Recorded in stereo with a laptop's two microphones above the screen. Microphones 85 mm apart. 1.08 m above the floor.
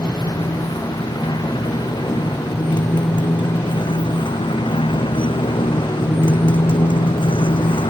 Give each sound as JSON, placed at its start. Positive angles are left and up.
{"t": 0.0, "sound": "a motorcycle", "side_deg": 55}